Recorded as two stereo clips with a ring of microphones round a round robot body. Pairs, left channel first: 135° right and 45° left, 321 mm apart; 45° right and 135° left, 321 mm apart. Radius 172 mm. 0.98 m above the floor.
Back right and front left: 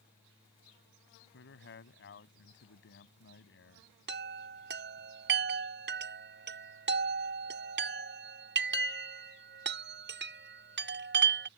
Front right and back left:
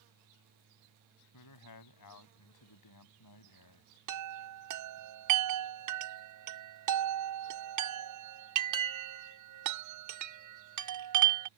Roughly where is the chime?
Left.